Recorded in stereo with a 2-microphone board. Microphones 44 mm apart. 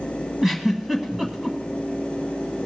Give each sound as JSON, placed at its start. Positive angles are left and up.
{"t": 0.4, "sound": "a giggle", "side_deg": -5, "distance_m": 1.4}